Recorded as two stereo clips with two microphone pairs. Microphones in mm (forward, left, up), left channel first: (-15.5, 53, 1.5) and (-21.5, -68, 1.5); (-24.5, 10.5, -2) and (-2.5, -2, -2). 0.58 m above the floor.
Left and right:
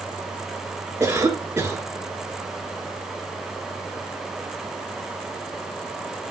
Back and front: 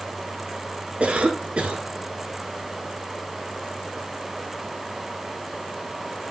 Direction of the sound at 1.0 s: 25° right.